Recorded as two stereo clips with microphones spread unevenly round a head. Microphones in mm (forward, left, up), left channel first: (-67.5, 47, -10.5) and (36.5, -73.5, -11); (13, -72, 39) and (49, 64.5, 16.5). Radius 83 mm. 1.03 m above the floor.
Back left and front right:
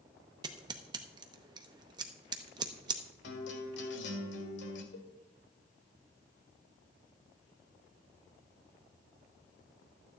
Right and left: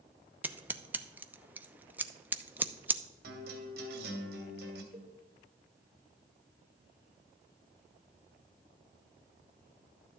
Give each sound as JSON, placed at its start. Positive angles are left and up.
{"t": 0.4, "sound": "scissors", "azimuth_deg": 10, "distance_m": 0.7}
{"t": 3.2, "sound": "a guitar", "azimuth_deg": 105, "distance_m": 2.0}
{"t": 4.9, "sound": "a cowbell", "azimuth_deg": 150, "distance_m": 2.5}